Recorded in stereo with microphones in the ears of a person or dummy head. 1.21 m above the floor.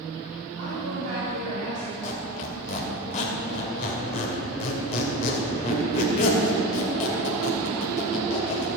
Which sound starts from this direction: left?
A squeak, at 2.0 s.